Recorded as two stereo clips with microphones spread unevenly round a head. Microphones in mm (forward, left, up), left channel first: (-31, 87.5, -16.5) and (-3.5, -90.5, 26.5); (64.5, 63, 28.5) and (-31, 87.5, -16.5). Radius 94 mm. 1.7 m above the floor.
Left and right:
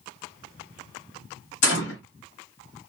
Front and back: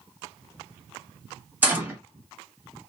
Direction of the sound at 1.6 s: 80° left.